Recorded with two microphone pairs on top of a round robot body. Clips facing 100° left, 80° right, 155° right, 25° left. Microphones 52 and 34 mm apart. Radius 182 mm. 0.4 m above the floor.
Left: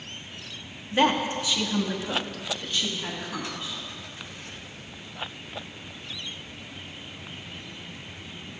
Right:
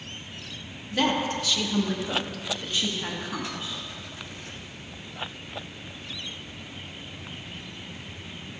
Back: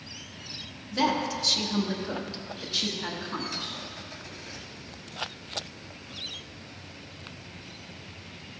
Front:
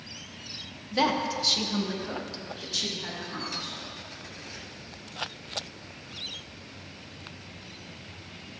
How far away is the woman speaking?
About 1.4 m.